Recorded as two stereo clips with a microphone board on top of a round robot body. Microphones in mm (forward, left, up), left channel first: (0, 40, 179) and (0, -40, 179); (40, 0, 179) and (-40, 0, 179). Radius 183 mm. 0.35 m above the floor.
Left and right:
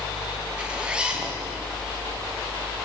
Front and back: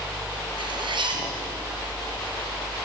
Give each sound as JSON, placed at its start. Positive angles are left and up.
{"t": 0.6, "sound": "a zipper", "azimuth_deg": -170, "distance_m": 3.5}